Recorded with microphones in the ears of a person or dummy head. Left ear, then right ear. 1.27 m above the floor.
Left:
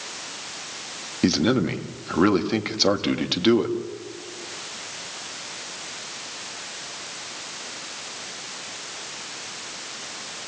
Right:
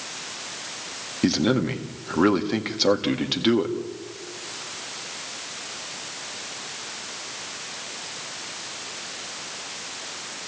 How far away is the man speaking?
About 1.7 m.